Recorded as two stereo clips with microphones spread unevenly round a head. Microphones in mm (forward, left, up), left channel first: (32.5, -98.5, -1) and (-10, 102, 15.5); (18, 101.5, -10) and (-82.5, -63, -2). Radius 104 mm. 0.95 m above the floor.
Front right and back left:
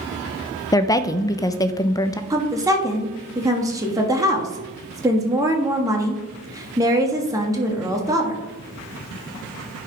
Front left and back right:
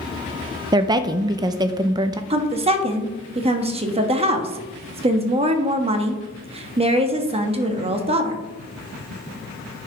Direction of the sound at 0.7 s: 85° right.